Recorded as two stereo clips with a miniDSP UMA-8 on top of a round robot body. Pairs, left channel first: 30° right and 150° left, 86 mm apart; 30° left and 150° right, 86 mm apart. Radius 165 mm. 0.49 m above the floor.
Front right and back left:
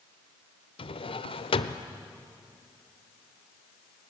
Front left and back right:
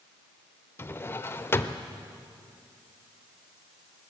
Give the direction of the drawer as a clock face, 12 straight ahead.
1 o'clock.